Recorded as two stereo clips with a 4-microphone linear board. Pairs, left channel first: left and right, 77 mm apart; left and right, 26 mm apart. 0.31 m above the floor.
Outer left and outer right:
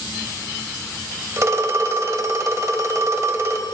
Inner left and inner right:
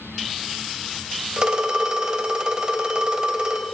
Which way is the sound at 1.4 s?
35° right (ahead or behind).